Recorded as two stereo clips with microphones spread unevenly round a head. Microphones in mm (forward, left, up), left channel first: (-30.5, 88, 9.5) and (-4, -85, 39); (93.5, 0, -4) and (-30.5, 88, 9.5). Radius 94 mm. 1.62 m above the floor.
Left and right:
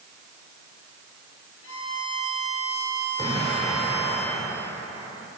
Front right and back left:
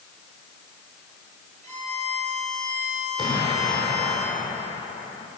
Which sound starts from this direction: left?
A violin, at 1.6 s.